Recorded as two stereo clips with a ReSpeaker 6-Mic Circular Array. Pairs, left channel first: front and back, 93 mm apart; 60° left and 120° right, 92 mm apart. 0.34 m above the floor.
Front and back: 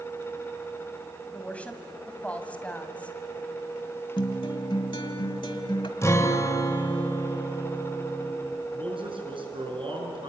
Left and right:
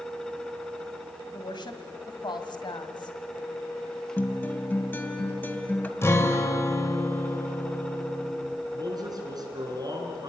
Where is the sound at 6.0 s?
25° left, 1.7 m.